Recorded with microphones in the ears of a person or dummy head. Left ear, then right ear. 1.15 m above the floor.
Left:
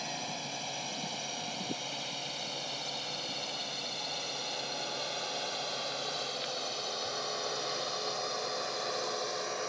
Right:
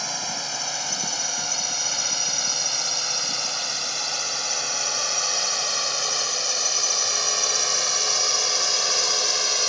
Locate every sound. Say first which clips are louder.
0.0 s a drone: right 10 dB; 55° right (ahead or behind); by 9.7 s 70° right (ahead or behind)